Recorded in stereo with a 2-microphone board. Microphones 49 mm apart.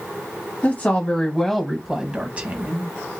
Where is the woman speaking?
35° left (ahead or behind), 1.2 m; by 2.9 s 40° right (ahead or behind), 1.3 m.